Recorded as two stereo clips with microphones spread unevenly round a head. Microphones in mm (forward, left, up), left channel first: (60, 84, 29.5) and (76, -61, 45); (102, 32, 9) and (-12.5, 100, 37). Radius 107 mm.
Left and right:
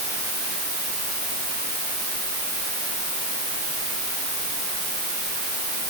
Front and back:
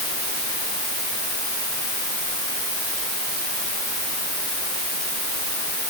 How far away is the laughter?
I don't hear laughter.